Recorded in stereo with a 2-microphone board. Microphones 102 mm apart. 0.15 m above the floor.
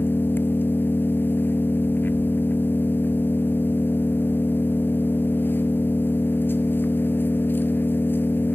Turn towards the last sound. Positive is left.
turn(degrees=20)  # may be behind; listen again after turning